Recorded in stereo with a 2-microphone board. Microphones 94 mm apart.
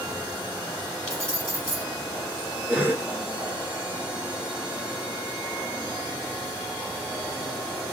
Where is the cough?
25° right (ahead or behind), 3 m.